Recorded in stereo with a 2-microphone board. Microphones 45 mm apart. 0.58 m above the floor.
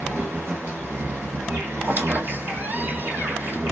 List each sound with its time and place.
0.0 s an insect: 80° right, 1.9 m
1.8 s a squeak: 45° right (ahead or behind), 1.1 m